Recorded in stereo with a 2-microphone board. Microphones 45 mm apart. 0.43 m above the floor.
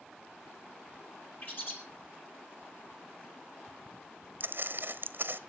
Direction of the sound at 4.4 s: 50° right (ahead or behind).